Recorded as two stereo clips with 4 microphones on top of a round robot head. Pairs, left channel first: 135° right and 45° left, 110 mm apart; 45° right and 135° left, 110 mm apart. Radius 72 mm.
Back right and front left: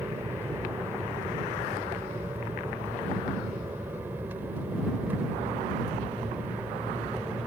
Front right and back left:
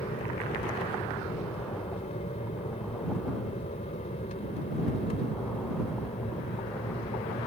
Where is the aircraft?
20° right; by 7.5 s 30° right.